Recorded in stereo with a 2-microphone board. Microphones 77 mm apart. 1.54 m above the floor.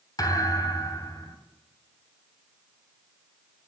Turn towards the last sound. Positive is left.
turn(degrees=60)  # may be behind; listen again after turning